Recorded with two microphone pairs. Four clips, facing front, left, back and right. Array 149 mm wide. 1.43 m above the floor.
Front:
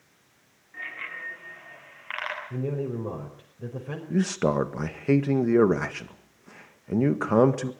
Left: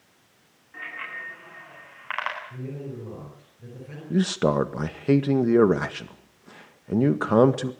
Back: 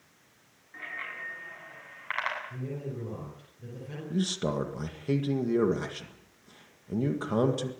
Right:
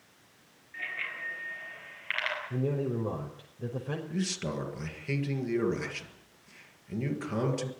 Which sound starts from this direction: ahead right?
A man speaking, at 2.5 s.